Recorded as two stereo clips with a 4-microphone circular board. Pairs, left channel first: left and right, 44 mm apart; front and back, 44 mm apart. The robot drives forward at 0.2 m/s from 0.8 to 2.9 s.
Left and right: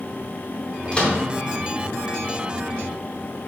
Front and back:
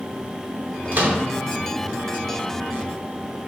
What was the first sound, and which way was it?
A microwave, 145° left.